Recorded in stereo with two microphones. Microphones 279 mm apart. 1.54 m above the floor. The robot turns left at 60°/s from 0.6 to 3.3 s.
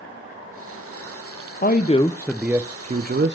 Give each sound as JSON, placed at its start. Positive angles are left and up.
{"t": 1.6, "sound": "a man speaking", "azimuth_deg": 45, "distance_m": 0.5}